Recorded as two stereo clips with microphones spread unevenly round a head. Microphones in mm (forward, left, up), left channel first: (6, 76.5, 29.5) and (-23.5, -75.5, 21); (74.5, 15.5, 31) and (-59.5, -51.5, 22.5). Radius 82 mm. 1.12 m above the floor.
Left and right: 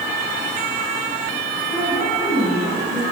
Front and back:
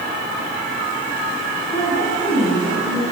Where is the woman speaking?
15° right, 7.5 m.